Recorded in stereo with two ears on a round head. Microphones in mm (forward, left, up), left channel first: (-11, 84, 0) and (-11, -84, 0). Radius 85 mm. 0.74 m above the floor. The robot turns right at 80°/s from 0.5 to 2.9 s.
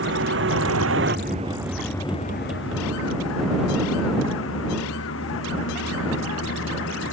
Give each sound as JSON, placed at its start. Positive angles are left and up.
{"t": 0.0, "sound": "a vehicle", "side_deg": -70}